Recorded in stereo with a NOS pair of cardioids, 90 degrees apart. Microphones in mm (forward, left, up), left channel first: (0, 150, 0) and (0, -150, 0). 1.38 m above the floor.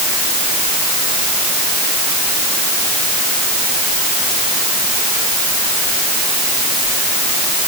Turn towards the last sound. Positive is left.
No sound to turn to.